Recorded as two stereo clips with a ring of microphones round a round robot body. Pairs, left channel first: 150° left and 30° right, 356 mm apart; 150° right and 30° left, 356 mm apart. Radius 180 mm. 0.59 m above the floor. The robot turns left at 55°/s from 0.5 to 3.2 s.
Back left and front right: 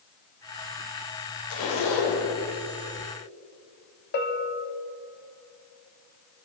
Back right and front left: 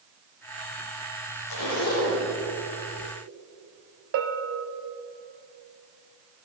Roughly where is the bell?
Left.